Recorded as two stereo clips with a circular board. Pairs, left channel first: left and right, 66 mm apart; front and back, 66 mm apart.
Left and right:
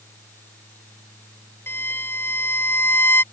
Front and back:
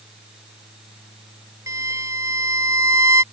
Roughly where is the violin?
Behind left.